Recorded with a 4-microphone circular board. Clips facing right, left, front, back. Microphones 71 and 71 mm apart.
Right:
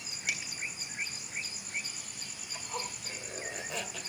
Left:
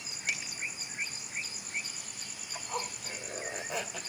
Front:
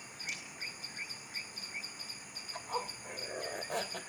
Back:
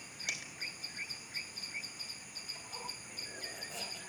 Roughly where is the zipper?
Ahead.